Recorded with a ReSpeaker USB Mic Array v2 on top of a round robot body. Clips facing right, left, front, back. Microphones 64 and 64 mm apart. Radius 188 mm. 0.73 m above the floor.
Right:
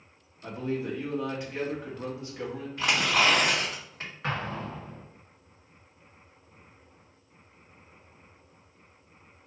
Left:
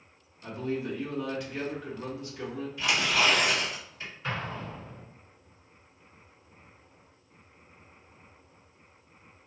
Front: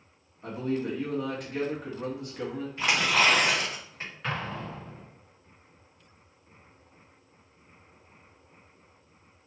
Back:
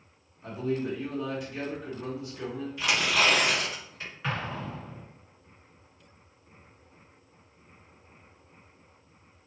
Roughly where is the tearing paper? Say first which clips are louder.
Right 2 dB, front 1 dB; ahead right.